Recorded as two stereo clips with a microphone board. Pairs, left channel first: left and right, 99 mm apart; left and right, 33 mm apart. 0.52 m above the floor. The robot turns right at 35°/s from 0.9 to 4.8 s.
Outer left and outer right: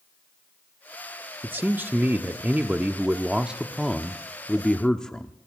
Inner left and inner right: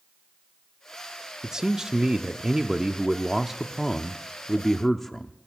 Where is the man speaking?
20° right (ahead or behind), 0.6 m; by 5.3 s 5° left (ahead or behind), 0.6 m.